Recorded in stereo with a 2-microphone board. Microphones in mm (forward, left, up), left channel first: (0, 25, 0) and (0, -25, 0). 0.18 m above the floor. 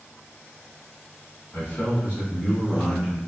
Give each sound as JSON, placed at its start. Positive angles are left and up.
{"t": 1.5, "sound": "a man speaking", "side_deg": 50, "distance_m": 1.8}